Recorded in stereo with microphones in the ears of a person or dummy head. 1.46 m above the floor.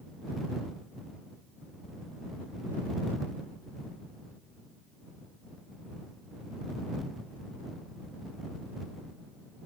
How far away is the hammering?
No hammering in this recording.